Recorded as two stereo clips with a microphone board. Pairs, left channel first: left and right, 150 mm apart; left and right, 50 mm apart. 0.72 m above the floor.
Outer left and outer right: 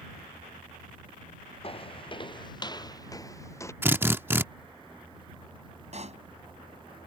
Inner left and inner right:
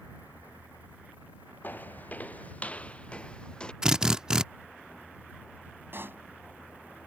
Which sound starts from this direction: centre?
A drill, at 3.8 s.